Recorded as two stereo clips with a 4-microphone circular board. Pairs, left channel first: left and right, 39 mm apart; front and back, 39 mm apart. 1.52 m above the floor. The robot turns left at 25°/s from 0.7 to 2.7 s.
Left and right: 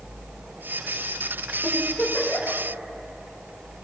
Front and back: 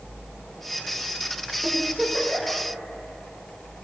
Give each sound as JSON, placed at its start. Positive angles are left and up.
{"t": 1.6, "sound": "a giggle", "azimuth_deg": 100, "distance_m": 1.7}